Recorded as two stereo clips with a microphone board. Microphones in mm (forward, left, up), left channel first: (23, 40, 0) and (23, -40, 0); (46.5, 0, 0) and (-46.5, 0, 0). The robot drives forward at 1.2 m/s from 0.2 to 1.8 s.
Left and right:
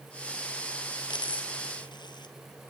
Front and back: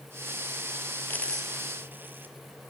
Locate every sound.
1.1 s a dropped coin: 70° left, 1.2 m; by 2.4 s 110° left, 1.2 m